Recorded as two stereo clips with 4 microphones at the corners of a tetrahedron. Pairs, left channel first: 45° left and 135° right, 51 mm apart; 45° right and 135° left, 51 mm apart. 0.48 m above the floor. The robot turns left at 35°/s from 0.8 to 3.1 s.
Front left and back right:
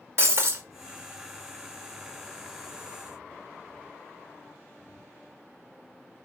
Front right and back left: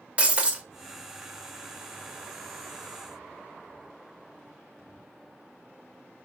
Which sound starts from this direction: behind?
Breaking glass, at 0.2 s.